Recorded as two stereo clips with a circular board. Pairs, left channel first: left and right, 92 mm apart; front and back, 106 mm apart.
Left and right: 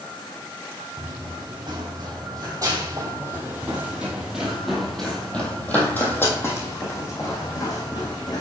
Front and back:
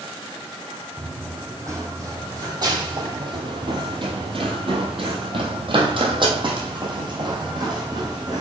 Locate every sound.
1.0 s running footsteps: 115° right, 2.5 m; by 8.4 s 130° left, 2.5 m